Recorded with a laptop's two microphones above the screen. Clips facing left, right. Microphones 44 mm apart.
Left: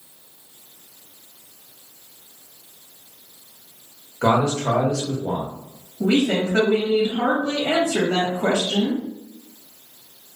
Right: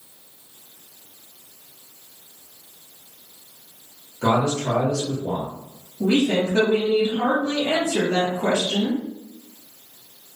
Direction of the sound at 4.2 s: 55° left (ahead or behind).